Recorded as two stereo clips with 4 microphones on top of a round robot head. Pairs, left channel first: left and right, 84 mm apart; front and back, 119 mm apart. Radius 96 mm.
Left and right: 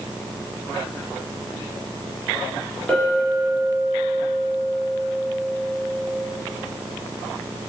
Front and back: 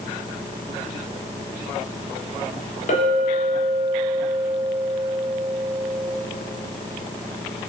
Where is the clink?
10° left, 1.5 m.